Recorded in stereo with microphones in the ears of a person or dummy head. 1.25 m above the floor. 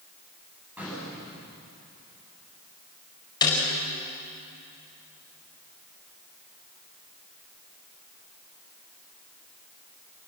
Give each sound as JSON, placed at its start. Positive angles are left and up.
{"t": 0.8, "sound": "an explosion", "side_deg": -10, "distance_m": 9.0}
{"t": 3.4, "sound": "a snare drum", "side_deg": 15, "distance_m": 4.5}